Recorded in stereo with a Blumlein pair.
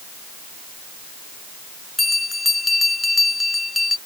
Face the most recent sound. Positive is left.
turn(degrees=10)